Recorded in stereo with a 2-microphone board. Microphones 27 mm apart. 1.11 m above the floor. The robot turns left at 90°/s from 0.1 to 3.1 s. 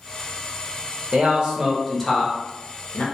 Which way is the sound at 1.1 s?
55° right (ahead or behind).